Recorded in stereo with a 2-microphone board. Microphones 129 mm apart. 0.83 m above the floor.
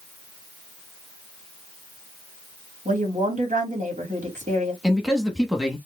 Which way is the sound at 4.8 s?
5° right (ahead or behind).